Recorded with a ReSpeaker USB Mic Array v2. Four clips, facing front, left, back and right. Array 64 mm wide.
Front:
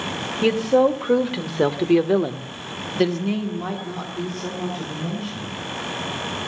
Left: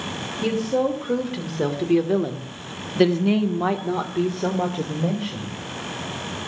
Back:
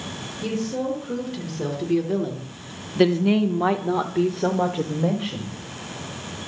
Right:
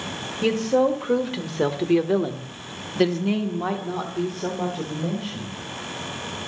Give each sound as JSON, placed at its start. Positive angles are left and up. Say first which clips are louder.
{"t": 0.4, "sound": "a woman speaking", "louder": "right 2 dB, front 9 dB", "azimuth_deg": -15, "distance_m": 3.0}